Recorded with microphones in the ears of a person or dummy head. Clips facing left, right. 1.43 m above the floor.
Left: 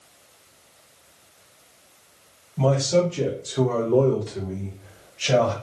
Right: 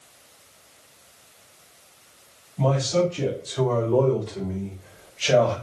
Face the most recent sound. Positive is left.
turn(degrees=-15)  # may be behind; listen again after turning